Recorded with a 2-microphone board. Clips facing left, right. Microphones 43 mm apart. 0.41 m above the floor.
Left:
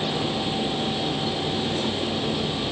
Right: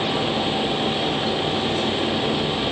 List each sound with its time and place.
Only background noise.